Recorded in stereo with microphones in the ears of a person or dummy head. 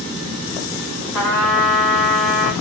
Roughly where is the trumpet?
Centre.